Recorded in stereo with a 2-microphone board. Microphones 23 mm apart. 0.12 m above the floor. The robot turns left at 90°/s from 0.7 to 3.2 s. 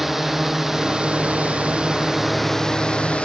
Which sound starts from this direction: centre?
A drone, at 0.0 s.